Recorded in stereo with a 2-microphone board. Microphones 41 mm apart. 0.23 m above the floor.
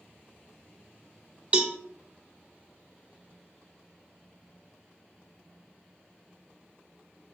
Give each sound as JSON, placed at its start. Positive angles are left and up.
{"t": 1.5, "sound": "a cowbell", "side_deg": -35, "distance_m": 0.7}